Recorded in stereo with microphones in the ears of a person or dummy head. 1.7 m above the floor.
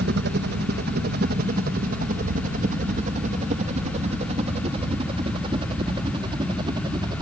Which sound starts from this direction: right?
A helicopter, at 0.0 s.